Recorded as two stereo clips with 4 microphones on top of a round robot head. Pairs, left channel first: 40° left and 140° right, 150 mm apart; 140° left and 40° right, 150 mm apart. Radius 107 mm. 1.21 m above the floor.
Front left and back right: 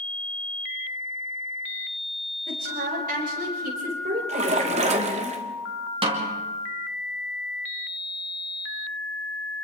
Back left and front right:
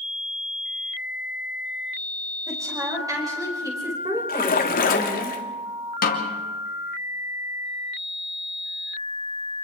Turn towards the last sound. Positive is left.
turn(degrees=165)